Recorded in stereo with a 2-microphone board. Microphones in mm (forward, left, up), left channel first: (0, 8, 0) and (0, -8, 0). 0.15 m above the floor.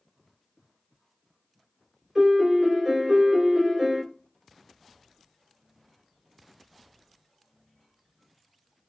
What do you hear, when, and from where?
2.1 s a piano: 45° right (ahead or behind), 2 m